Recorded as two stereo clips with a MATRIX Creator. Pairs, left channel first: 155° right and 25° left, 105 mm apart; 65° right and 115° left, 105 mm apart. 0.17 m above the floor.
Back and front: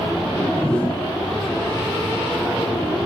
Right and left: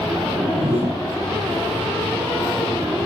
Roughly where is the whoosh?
Behind left.